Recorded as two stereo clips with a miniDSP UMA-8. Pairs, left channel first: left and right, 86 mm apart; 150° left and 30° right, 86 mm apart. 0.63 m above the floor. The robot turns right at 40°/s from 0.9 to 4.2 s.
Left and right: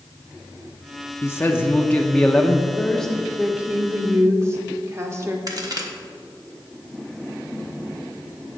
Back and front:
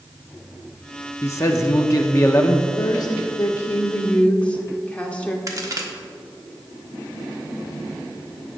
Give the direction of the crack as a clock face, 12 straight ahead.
2 o'clock.